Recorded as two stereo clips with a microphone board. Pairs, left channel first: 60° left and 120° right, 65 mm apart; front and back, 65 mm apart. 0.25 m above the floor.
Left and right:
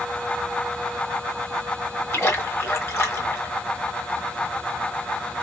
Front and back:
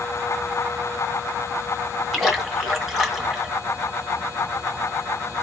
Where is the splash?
90° left, 2.5 m.